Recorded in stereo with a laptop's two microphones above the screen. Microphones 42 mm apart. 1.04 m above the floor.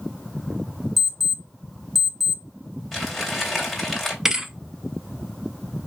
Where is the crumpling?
5° left (ahead or behind), 2.5 m.